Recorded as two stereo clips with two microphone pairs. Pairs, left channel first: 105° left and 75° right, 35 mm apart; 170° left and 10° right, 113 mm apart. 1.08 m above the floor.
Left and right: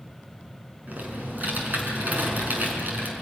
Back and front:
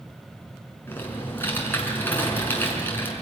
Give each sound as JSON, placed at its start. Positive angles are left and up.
{"t": 0.9, "sound": "typing on a keyboard", "azimuth_deg": -120, "distance_m": 5.5}